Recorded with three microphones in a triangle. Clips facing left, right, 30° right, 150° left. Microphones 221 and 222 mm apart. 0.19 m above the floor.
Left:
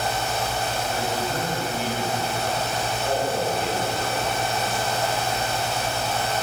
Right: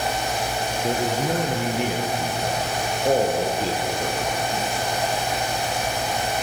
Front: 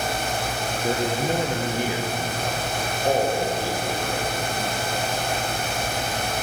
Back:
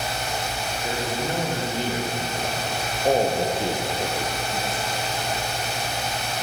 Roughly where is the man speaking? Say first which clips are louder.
Right 8 dB, front 4 dB; right.